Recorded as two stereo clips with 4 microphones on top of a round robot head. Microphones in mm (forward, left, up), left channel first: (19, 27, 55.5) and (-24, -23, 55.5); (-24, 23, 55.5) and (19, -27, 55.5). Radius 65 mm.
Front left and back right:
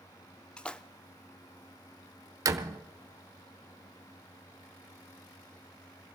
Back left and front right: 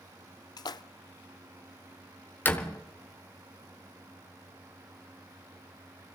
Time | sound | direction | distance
0.6 | a splash | 125° left | 0.6 m
2.5 | a door slam | 165° right | 1.1 m